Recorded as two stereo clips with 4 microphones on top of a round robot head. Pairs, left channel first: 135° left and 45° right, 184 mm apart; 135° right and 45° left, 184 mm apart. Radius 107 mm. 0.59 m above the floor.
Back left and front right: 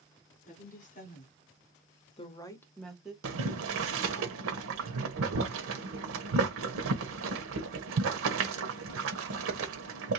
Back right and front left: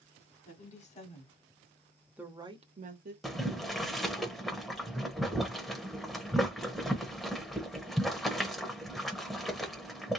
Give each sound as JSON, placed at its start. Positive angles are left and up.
{"t": 0.4, "sound": "a woman speaking", "azimuth_deg": 180, "distance_m": 2.5}
{"t": 3.2, "sound": "boiling", "azimuth_deg": -45, "distance_m": 0.9}